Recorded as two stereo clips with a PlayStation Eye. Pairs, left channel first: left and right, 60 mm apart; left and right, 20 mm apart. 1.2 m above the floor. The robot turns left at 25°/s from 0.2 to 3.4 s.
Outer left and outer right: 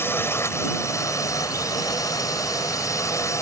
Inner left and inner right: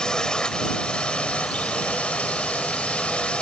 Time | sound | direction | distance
0.0 | a drone | 140° left | ?